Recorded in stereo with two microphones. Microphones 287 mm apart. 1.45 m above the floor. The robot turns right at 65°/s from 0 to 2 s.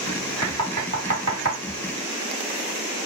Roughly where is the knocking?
Right.